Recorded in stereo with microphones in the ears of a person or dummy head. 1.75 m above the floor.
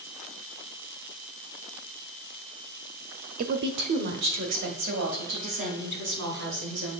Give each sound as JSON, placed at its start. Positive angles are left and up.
{"t": 3.4, "sound": "a woman speaking", "side_deg": -40, "distance_m": 0.6}